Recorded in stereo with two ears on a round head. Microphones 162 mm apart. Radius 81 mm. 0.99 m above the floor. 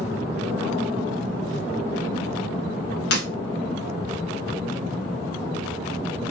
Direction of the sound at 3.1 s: 65° left (ahead or behind).